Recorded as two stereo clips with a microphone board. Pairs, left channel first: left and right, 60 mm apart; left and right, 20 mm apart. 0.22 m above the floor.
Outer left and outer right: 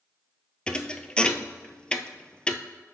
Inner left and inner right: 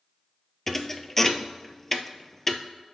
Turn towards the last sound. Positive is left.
turn(degrees=15)  # may be behind; listen again after turning